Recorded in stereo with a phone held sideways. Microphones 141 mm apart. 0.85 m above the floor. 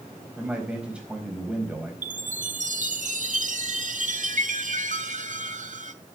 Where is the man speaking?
10° right (ahead or behind), 4 m.